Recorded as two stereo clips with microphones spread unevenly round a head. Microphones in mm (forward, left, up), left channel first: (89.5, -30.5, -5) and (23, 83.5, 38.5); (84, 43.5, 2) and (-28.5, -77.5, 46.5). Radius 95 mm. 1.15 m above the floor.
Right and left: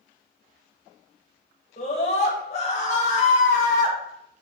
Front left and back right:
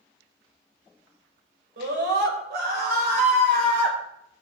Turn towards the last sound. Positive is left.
turn(degrees=-85)